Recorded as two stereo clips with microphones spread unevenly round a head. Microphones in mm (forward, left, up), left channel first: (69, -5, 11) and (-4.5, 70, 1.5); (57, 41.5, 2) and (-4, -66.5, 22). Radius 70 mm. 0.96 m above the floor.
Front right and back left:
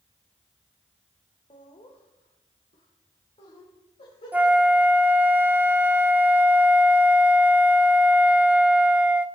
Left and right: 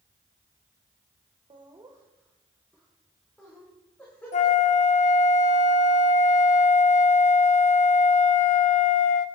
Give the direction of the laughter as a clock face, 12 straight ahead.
3 o'clock.